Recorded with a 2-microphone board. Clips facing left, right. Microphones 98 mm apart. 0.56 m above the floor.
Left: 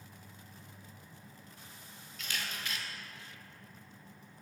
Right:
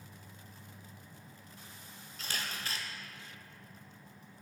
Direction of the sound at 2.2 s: 35° right (ahead or behind).